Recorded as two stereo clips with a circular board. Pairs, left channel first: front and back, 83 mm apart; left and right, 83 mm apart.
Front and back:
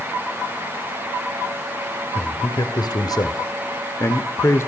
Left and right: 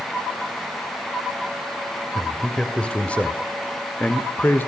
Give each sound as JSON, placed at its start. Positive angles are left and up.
{"t": 2.1, "sound": "a man speaking", "azimuth_deg": 10, "distance_m": 2.5}